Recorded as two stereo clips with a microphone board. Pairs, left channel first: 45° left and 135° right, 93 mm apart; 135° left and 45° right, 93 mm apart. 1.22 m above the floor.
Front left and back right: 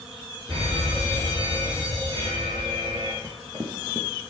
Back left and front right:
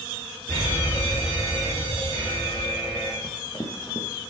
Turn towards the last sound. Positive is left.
turn(degrees=-175)